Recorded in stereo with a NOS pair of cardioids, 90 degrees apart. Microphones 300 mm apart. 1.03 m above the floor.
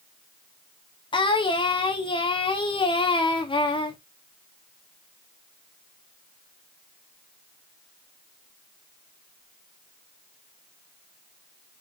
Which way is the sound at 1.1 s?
15° left.